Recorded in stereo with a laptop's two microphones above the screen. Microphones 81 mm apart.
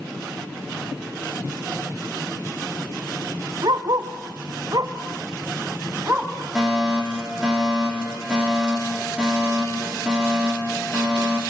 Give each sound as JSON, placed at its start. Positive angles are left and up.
{"t": 3.6, "sound": "a dog barking", "side_deg": -60, "distance_m": 1.6}
{"t": 6.5, "sound": "a fire alarm", "side_deg": -10, "distance_m": 4.0}